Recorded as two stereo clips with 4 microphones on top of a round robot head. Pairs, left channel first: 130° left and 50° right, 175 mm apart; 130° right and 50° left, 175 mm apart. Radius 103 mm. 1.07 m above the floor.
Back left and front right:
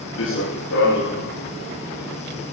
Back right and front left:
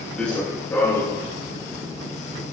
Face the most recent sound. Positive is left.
turn(degrees=160)